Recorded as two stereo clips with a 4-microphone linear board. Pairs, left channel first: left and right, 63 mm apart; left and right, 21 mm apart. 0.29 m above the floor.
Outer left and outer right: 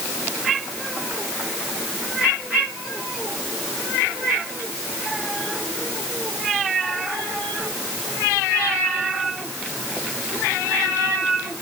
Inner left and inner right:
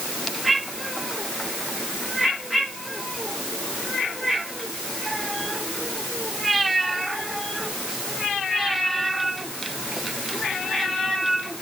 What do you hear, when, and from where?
Only background noise.